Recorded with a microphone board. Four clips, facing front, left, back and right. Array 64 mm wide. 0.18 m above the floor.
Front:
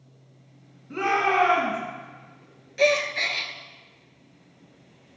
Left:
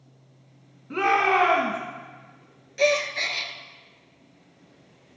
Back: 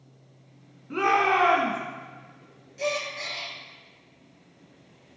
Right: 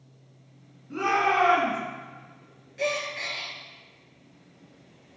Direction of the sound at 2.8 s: 25° left.